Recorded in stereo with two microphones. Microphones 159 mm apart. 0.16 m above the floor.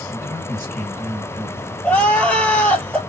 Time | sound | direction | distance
0.1 | a man speaking | 15° left (ahead or behind) | 2 m
1.8 | crying | 10° left (ahead or behind) | 0.7 m